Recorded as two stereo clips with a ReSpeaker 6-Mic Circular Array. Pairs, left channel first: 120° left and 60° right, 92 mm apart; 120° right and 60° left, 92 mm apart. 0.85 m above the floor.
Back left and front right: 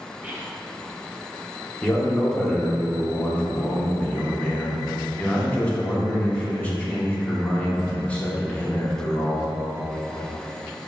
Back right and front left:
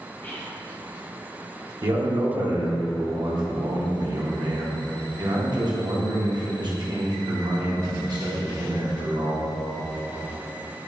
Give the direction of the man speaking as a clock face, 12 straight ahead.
10 o'clock.